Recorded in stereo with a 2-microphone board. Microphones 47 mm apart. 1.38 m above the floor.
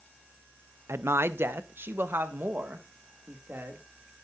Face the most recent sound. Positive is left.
turn(degrees=-45)  # may be behind; listen again after turning